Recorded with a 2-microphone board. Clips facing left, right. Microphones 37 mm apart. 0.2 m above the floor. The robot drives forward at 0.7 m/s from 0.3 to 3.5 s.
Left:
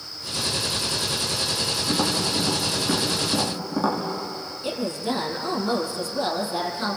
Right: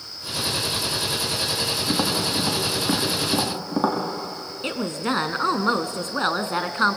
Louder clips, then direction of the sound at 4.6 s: Right 1 dB; 55° right (ahead or behind).